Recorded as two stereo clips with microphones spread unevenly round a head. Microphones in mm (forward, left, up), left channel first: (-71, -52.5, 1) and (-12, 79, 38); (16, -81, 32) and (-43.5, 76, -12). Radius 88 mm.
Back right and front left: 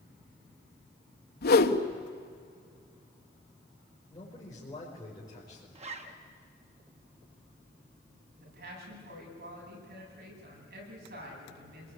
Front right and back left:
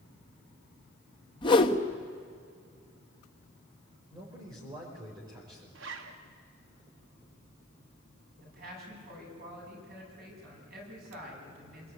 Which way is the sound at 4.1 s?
Straight behind.